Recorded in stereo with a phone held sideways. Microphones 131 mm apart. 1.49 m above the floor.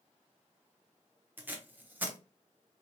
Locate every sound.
1.4 s tape being pulled: 15° right (ahead or behind), 1.0 m